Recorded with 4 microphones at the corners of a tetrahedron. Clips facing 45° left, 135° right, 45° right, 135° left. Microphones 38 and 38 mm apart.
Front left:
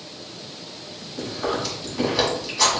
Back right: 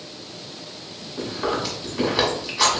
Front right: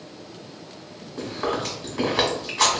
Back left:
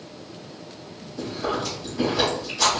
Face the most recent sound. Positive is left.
turn(degrees=-65)